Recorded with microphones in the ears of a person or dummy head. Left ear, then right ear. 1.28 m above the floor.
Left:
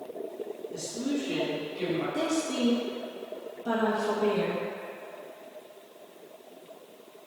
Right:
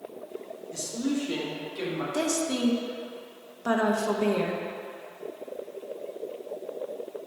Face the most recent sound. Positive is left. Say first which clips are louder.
# right 1 dB
turn(degrees=-55)  # may be behind; listen again after turning